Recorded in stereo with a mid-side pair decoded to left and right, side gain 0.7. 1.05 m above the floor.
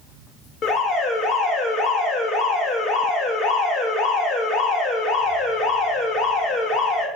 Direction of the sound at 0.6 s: 45° left.